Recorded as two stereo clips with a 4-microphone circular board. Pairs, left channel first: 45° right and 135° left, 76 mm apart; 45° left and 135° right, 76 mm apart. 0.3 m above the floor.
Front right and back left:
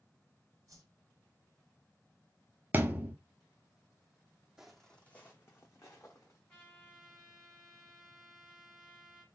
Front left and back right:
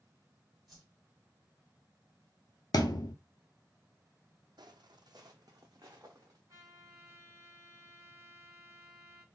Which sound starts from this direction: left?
A thud, at 2.7 s.